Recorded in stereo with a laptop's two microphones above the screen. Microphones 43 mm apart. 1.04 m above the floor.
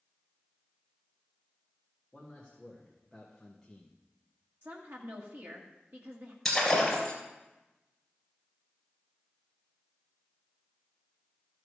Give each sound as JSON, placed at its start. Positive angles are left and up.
{"t": 2.1, "sound": "a man speaking", "side_deg": -10, "distance_m": 2.0}
{"t": 4.6, "sound": "a woman speaking", "side_deg": -65, "distance_m": 1.7}
{"t": 6.5, "sound": "breaking glass", "side_deg": 5, "distance_m": 3.0}